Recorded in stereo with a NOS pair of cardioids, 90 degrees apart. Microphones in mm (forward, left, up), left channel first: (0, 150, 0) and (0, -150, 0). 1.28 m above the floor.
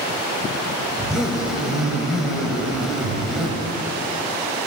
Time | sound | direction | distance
1.0 | a zipper | straight ahead | 2.5 m